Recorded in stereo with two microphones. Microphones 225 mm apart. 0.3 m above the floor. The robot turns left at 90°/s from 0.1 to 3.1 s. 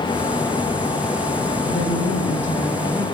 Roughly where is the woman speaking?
Behind left.